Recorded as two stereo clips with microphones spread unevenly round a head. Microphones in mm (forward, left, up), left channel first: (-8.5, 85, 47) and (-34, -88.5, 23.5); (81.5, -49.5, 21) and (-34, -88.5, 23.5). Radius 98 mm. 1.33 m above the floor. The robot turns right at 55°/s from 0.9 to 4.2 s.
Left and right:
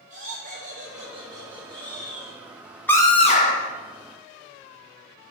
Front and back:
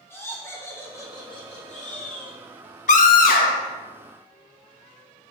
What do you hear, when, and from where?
0.1 s laughter: 50° right, 2.5 m; by 2.4 s 30° left, 2.5 m
2.9 s a scream: straight ahead, 1.1 m; by 3.7 s 45° left, 1.1 m